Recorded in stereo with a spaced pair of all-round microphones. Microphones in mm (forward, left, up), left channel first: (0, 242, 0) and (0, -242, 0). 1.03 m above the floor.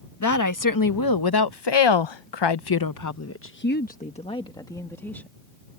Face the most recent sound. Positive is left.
turn(degrees=5)  # may be behind; listen again after turning